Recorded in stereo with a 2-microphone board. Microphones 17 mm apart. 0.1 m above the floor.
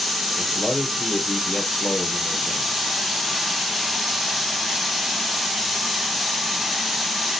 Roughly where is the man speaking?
Left.